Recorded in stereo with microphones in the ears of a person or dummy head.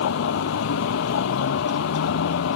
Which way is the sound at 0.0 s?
70° left (ahead or behind).